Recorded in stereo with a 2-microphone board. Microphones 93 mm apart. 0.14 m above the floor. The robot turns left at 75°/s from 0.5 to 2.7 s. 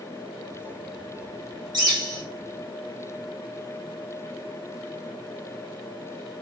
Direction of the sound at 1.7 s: 95° right.